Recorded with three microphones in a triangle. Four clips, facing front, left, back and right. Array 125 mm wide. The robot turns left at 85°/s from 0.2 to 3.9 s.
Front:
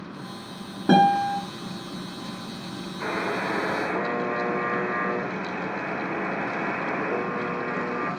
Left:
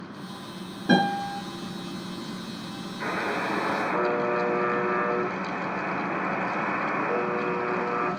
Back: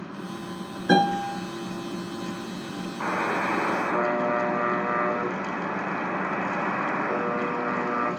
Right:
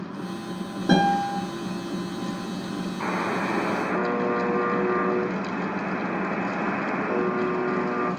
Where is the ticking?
No ticking in this recording.